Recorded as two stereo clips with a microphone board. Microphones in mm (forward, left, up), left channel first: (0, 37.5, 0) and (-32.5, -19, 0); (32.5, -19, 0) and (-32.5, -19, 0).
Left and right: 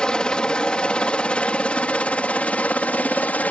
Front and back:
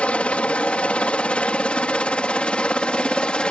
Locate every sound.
0.0 s a helicopter: 10° left; by 3.5 s 50° left